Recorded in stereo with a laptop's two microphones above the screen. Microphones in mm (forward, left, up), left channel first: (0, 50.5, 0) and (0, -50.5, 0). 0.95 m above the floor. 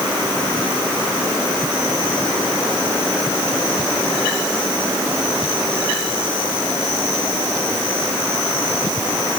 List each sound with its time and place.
Only background noise.